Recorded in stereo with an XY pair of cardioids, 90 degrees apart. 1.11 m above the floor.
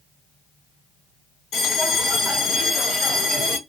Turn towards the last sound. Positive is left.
turn(degrees=65)